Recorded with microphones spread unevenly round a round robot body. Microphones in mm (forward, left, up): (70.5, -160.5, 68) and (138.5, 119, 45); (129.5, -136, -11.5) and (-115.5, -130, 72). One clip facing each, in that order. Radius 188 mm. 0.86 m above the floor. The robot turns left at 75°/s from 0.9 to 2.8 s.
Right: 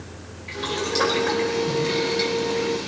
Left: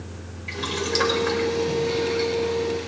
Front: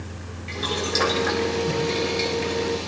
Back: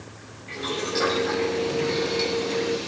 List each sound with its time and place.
0.5 s boiling: 35° left, 4 m; by 2.9 s 110° right, 4 m